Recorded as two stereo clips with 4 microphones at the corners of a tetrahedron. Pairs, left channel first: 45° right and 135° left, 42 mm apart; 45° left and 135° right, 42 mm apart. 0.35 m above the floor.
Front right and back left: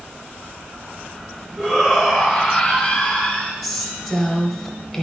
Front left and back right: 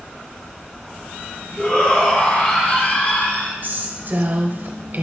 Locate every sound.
1.6 s a shout: 70° left, 1.6 m; by 3.5 s 15° left, 2.5 m
3.6 s a woman speaking: 130° right, 1.2 m